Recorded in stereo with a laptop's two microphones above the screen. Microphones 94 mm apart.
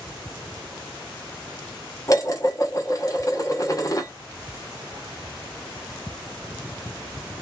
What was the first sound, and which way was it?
Dishes clattering, 35° left (ahead or behind).